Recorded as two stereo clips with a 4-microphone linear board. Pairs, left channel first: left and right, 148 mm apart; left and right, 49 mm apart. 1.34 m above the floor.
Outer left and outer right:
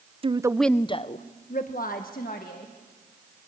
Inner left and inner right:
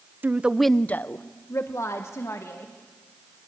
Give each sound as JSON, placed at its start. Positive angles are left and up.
{"t": 0.2, "sound": "a woman speaking", "side_deg": -40, "distance_m": 0.6}